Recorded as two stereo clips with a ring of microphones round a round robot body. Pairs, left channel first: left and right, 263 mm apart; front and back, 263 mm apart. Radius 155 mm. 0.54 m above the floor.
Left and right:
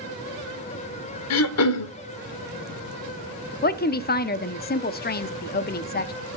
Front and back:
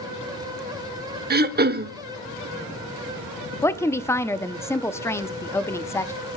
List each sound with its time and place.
1.3 s throat clearing: 125° left, 0.8 m
3.6 s a woman speaking: 75° left, 0.7 m